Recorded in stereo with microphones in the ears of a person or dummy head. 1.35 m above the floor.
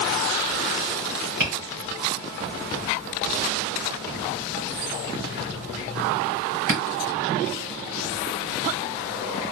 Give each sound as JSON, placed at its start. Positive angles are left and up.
{"t": 1.4, "sound": "tapping", "side_deg": -50, "distance_m": 2.5}